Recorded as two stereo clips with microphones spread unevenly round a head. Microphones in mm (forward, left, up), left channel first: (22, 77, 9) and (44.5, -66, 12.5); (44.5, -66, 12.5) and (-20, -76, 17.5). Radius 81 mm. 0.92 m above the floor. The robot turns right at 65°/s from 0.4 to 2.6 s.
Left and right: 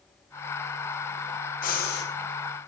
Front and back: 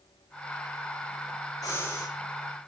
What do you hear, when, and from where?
1.6 s breathing: 70° left, 7.5 m; by 2.1 s 100° left, 7.5 m